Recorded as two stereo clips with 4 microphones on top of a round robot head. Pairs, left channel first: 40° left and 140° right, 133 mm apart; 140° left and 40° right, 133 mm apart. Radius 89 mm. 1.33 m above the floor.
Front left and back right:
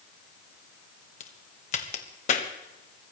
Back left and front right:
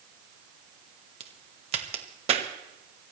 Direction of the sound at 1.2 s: 5° left.